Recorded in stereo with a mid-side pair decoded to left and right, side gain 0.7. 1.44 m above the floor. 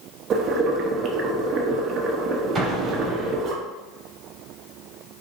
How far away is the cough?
No cough in this recording.